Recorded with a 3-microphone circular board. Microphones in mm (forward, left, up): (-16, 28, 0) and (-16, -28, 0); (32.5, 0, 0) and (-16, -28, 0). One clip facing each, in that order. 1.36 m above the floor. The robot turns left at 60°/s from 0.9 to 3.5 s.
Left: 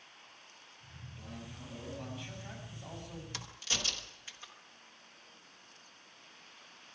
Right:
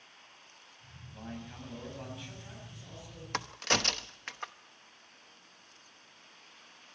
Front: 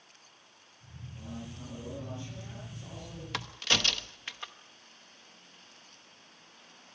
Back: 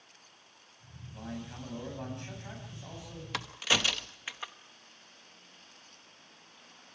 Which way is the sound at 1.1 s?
115° right.